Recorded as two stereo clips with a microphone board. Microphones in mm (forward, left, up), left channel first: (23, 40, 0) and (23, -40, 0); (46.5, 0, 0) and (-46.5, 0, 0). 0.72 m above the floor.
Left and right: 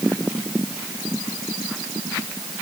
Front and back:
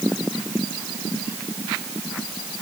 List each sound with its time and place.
Only background noise.